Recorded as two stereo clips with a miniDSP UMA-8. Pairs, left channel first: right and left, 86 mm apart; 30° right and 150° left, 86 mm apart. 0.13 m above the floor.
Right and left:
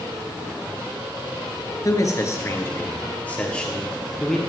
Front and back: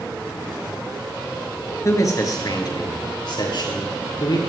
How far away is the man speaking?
About 2 m.